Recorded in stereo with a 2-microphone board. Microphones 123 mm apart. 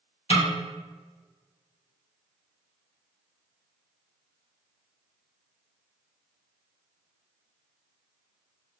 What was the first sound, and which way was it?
A snare drum, 50° left (ahead or behind).